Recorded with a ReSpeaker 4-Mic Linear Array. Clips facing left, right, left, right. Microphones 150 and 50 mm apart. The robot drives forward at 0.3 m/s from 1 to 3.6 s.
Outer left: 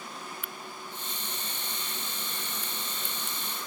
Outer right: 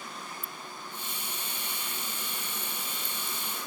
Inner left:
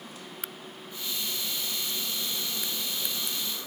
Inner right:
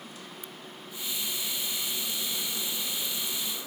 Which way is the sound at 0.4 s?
75° left (ahead or behind).